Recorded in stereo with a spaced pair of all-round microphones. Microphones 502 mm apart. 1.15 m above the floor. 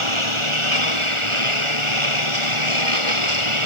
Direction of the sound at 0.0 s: 70° right (ahead or behind).